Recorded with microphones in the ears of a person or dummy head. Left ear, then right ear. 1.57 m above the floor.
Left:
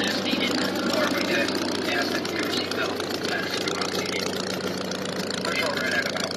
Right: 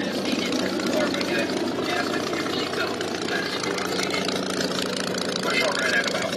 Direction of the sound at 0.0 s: 25° left (ahead or behind).